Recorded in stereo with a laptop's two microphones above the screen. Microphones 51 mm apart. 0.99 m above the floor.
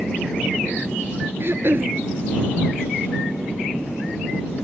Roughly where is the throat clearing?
Right.